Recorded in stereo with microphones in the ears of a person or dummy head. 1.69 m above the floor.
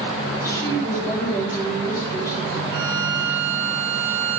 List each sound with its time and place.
0.3 s a woman speaking: 15° left (ahead or behind), 4.5 m
2.7 s a violin: 30° right (ahead or behind), 2.5 m